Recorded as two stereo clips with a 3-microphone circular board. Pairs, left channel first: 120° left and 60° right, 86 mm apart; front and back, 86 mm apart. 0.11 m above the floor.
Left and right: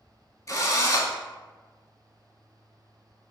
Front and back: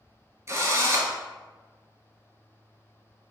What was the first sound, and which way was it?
A drill, 140° left.